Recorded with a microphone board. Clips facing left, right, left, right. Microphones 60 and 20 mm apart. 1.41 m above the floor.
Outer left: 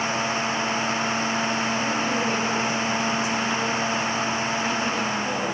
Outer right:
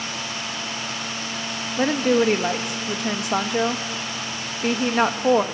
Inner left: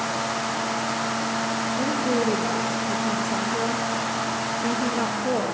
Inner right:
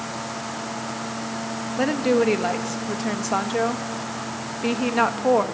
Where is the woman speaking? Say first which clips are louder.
Outer right 5 dB, inner right 6 dB; 70° right (ahead or behind), 1.5 m.